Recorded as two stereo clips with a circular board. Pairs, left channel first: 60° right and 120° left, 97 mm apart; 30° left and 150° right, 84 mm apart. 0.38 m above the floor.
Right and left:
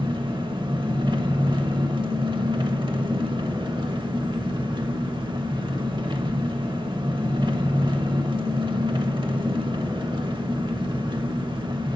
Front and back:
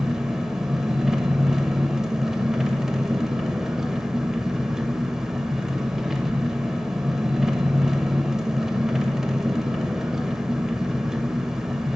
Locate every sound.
0.0 s an engine running: 125° left, 0.8 m